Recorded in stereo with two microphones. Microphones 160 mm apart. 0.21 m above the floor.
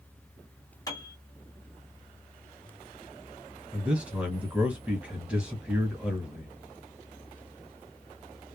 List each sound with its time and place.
0.9 s a piano: 25° left (ahead or behind), 1.6 m
3.7 s a man speaking: 10° right (ahead or behind), 1.6 m